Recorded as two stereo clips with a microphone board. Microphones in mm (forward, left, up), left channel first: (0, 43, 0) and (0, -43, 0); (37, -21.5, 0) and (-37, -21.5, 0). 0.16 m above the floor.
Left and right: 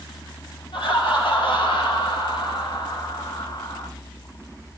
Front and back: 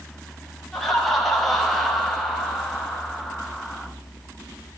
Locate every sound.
0.7 s laughter: 90° left, 4.5 m